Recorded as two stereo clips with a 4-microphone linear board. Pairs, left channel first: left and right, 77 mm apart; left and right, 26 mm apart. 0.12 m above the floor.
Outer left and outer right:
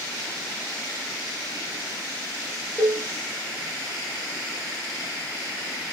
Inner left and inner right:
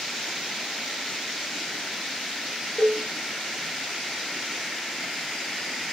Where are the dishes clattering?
10° right (ahead or behind), 1.2 m.